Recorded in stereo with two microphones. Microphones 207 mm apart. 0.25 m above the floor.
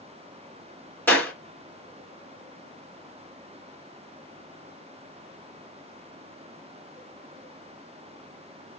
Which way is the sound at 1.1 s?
10° left (ahead or behind).